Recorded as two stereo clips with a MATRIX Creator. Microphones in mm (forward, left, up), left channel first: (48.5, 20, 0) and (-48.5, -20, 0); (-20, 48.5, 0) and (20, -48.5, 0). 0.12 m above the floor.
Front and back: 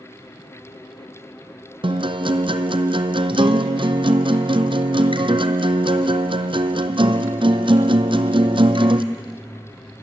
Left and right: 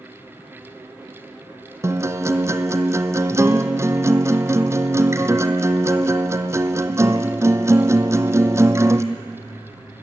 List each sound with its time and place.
1.8 s a guitar: 130° right, 0.9 m